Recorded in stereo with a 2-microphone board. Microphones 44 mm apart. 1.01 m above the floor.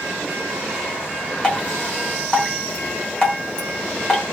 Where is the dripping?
20° left (ahead or behind), 1.4 m.